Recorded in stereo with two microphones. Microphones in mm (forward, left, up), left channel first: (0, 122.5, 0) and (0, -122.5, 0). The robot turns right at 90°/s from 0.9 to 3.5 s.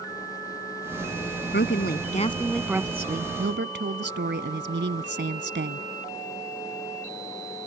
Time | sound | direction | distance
1.5 | a woman speaking | 80° left | ?